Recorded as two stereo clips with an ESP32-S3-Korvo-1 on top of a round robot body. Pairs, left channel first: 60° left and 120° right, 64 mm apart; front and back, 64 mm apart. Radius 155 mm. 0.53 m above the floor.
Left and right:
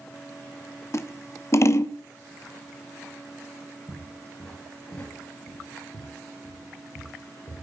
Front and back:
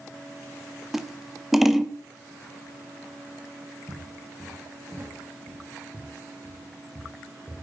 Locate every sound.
0.9 s scissors: 95° left, 1.1 m
3.9 s footsteps: 130° left, 3 m; by 7.6 s 105° left, 5 m